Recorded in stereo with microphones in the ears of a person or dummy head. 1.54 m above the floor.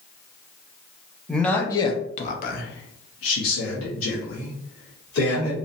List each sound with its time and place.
1.3 s a man speaking: centre (ahead or behind), 0.8 m; by 5.6 s 70° left (ahead or behind), 1.9 m